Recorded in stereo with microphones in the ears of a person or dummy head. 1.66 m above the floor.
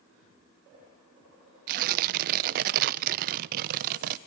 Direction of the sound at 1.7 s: 50° right (ahead or behind).